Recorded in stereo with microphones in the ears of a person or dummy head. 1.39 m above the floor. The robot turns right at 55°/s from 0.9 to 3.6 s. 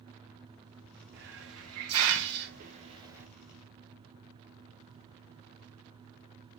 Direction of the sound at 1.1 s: 50° right (ahead or behind).